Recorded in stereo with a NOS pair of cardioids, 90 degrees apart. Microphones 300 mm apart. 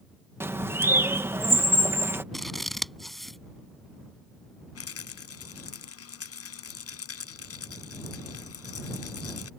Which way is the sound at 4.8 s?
50° left.